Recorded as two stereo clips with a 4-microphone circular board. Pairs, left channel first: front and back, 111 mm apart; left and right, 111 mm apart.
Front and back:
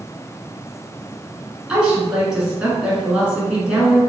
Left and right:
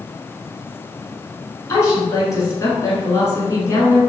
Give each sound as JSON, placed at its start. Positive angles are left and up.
{"t": 1.7, "sound": "a woman speaking", "azimuth_deg": 105, "distance_m": 1.4}